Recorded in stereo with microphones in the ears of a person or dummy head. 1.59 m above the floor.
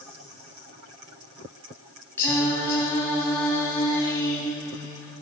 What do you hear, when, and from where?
2.2 s singing: 10° left (ahead or behind), 1.7 m